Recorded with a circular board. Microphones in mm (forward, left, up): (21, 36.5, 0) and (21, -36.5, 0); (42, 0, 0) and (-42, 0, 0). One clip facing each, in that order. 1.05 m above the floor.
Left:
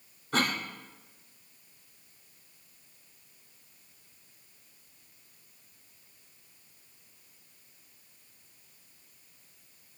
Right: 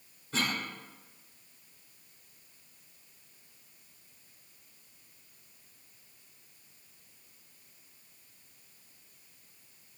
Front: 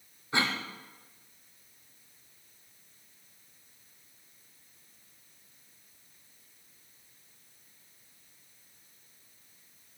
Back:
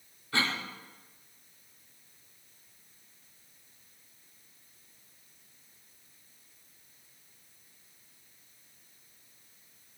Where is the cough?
65° left, 3.5 m.